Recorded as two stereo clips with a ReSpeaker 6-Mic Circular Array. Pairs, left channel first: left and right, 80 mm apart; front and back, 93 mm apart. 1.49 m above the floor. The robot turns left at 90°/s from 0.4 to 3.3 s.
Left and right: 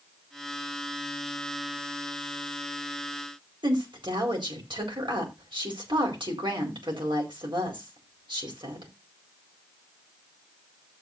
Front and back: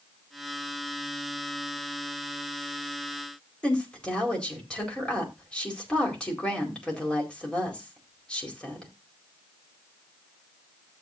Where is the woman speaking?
80° right, 4.5 m.